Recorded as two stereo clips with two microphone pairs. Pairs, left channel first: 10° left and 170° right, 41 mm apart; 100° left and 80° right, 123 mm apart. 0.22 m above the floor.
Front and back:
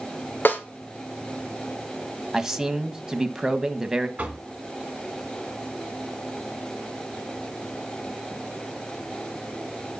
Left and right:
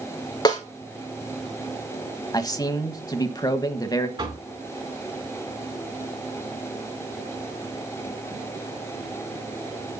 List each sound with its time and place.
0.5 s a snare drum: 45° left, 2 m
2.3 s a man speaking: 120° left, 1.1 m
4.2 s knocking: 120° right, 2 m